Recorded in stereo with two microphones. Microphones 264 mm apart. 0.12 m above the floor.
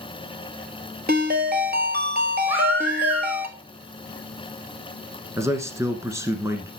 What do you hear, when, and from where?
1.1 s a ringtone: 40° right (ahead or behind), 1.2 m
2.5 s a baby crying: 25° right (ahead or behind), 4 m
5.4 s a man speaking: 10° right (ahead or behind), 1.2 m